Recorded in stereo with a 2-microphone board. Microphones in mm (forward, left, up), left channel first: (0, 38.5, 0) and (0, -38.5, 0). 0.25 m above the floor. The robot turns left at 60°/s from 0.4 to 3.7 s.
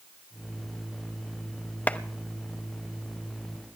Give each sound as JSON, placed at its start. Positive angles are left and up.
{"t": 1.9, "sound": "a clap", "side_deg": 20, "distance_m": 0.8}